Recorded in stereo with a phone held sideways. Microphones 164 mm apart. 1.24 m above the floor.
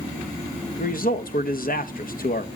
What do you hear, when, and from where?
0.8 s a man speaking: 60° left (ahead or behind), 1.1 m